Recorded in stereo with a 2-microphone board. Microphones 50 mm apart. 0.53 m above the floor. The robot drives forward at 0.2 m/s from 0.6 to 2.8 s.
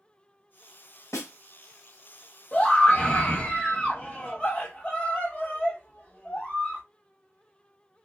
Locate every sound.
1.1 s a snare drum: 80° left, 0.8 m; by 1.3 s 75° left (ahead or behind), 0.9 m
2.5 s a scream: 30° left (ahead or behind), 1.3 m